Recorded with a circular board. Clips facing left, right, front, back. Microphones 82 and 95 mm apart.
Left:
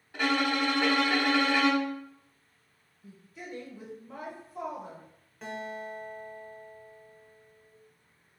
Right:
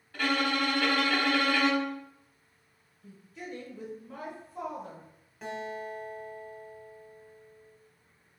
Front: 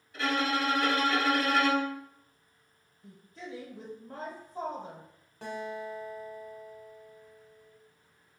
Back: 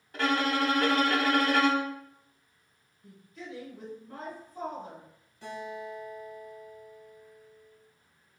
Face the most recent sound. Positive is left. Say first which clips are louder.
# right 1 dB, front 1 dB
turn(degrees=0)